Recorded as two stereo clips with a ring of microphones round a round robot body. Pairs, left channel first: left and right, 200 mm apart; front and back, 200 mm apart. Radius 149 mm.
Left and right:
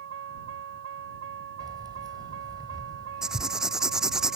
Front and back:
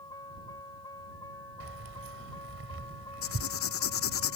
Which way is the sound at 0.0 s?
80° right.